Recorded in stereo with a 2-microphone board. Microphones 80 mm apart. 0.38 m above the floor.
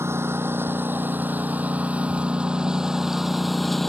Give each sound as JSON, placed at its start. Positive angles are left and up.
{"t": 0.0, "sound": "a lawn mower", "side_deg": -30}